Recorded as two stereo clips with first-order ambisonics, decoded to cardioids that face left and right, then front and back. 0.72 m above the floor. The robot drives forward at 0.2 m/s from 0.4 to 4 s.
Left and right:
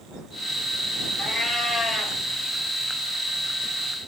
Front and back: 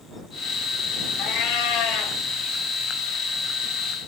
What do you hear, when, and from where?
1.2 s a cat meowing: 10° left, 1.2 m